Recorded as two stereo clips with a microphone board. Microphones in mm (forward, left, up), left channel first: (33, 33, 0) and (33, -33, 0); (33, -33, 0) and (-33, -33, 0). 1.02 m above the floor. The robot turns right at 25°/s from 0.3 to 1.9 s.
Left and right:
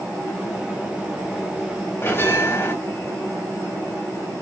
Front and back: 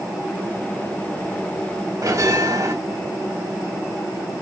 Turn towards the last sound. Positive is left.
turn(degrees=145)